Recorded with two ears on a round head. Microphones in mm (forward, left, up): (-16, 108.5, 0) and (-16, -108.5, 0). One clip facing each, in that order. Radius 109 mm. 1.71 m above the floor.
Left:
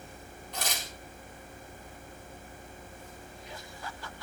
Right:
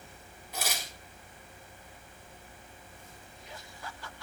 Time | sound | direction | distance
0.5 | tearing paper | 5° right (ahead or behind) | 6 m